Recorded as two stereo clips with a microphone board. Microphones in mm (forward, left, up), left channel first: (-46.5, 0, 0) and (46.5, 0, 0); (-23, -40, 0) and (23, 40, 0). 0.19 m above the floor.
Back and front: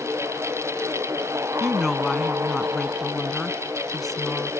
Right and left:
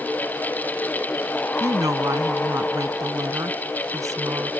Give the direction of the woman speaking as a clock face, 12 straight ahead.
9 o'clock.